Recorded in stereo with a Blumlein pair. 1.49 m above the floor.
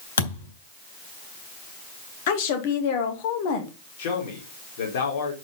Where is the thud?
65° left, 3.5 m.